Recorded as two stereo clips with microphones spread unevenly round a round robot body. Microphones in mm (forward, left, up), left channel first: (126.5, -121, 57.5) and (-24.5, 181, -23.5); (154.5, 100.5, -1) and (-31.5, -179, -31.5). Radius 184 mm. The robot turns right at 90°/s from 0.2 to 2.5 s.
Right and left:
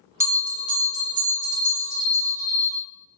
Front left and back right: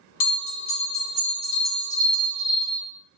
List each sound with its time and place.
0.2 s a bell: 45° left, 1.3 m; by 2.8 s 110° right, 1.3 m